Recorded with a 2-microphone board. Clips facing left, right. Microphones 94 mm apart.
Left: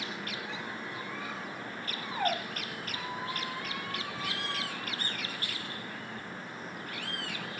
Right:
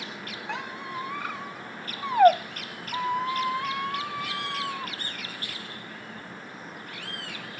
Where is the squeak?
65° right (ahead or behind), 0.7 m.